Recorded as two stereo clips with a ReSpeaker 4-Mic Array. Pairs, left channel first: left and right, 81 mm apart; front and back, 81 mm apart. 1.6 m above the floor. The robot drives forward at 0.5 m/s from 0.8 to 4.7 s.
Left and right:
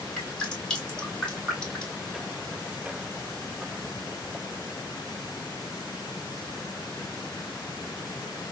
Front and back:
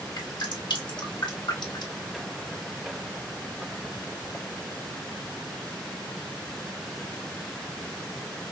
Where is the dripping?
10° left, 2.5 m; by 2.0 s 15° left, 1.7 m.